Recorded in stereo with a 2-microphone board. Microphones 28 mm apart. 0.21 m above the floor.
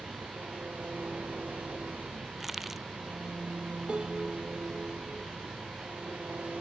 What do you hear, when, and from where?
0.0 s an engine running: 70° right (ahead or behind)
2.4 s crushing: 5° right (ahead or behind)
3.9 s a piano: 40° right (ahead or behind)